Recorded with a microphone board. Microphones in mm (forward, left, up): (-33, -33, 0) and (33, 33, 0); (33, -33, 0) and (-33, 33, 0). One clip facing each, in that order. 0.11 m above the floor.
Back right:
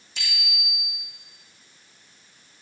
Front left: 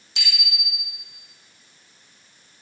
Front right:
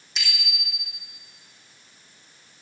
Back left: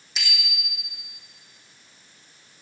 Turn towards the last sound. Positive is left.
turn(degrees=45)